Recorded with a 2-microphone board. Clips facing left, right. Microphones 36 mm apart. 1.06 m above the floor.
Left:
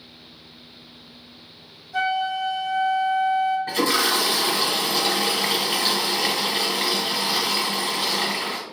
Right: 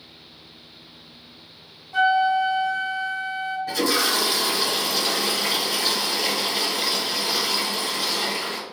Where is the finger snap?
No finger snap in this recording.